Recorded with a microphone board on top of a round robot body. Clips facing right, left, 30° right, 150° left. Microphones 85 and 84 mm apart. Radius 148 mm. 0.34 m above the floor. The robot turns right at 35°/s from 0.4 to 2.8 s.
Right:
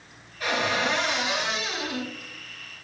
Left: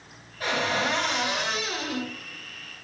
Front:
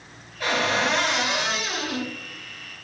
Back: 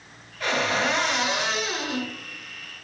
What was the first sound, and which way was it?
A cupboard door, 50° left.